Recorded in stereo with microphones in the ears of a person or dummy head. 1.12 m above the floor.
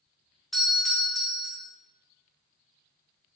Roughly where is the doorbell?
Centre.